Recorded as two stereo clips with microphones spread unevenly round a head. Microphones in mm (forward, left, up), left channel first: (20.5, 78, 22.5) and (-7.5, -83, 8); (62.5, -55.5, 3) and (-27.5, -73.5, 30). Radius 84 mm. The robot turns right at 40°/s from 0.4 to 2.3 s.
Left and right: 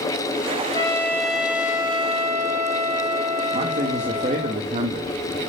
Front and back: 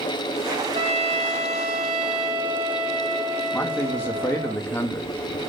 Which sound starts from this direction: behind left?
A trumpet, at 0.7 s.